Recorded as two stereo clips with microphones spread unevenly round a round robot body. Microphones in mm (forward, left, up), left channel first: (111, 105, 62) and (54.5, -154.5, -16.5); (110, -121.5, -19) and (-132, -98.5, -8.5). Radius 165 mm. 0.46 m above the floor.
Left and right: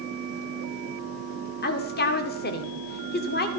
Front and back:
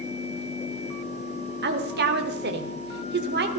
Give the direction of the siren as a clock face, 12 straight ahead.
I don't hear a siren.